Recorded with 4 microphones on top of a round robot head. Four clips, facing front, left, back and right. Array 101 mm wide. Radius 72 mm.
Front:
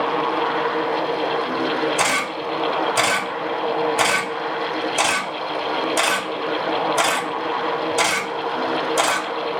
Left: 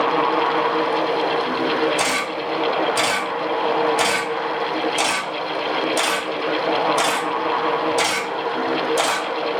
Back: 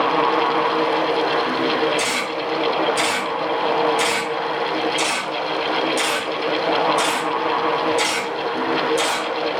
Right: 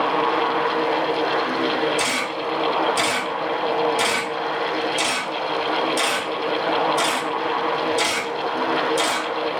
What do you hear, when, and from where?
2.0 s a camera shutter: 30° left, 0.9 m